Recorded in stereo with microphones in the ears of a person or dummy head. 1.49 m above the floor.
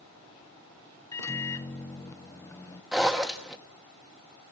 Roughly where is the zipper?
Centre.